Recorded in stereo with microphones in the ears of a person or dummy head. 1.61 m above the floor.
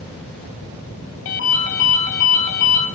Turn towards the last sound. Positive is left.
turn(degrees=75)  # may be behind; listen again after turning